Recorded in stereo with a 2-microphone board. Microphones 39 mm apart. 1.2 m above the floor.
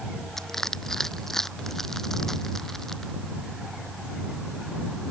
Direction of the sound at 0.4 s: 10° left (ahead or behind).